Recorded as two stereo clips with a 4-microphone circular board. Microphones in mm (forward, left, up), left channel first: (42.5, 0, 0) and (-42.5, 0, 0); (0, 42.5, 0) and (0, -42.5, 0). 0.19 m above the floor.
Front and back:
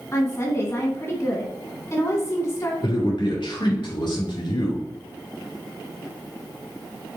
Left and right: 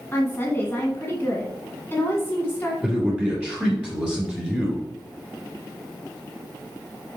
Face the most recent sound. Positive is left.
turn(degrees=-15)